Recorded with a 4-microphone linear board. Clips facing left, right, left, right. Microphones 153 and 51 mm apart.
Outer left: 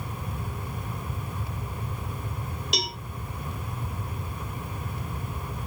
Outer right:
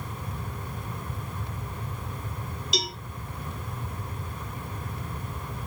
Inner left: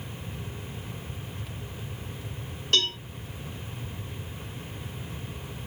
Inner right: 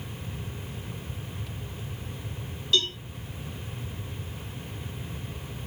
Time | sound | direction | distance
2.7 | a cowbell | 65° left (ahead or behind) | 1.6 m